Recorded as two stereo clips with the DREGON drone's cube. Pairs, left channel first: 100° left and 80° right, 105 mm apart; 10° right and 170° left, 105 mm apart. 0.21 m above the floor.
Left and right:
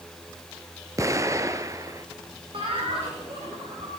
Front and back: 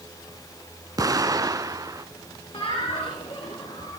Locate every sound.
1.0 s an explosion: 135° right, 1.0 m
2.5 s laughter: 45° right, 5.5 m